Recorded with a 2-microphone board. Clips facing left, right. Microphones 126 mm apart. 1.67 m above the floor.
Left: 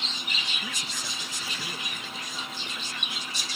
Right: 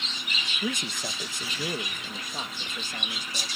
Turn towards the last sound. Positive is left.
turn(degrees=-50)  # may be behind; listen again after turning